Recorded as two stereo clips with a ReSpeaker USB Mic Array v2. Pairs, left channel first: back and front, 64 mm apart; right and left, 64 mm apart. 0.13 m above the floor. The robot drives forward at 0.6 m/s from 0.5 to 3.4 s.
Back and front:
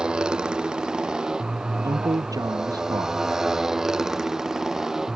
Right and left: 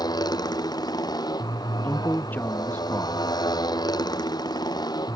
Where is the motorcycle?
75° right; by 5.2 s 80° right.